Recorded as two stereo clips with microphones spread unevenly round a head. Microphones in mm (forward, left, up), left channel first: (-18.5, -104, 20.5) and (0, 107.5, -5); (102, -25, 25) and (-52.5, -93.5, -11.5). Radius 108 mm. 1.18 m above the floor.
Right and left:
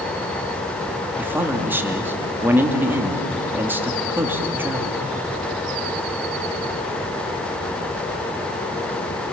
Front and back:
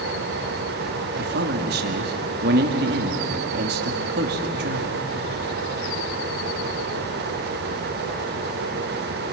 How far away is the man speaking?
About 2.5 m.